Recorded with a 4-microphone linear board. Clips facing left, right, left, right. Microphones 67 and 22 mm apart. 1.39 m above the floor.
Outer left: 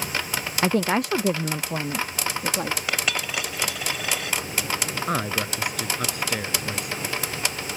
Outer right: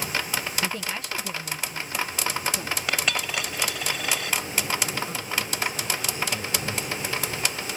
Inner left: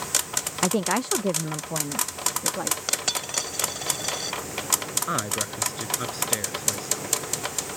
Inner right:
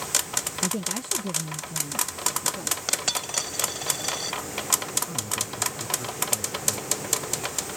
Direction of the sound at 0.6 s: 35° left (ahead or behind).